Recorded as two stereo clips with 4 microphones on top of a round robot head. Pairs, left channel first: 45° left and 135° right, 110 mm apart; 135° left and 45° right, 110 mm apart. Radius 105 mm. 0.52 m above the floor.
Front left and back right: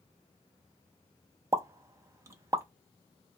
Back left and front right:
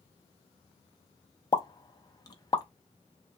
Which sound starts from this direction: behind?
A pop, at 1.5 s.